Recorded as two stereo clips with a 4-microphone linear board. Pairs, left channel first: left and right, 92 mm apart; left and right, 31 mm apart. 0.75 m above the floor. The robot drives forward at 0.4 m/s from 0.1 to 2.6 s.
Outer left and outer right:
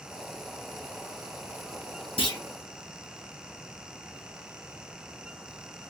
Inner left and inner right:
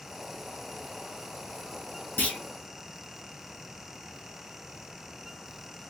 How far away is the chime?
I don't hear a chime.